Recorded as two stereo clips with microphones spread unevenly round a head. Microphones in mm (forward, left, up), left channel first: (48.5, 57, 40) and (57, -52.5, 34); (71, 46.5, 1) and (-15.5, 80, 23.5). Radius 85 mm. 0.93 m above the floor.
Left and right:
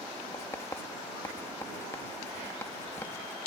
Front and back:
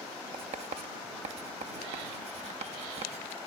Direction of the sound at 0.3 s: 165° left.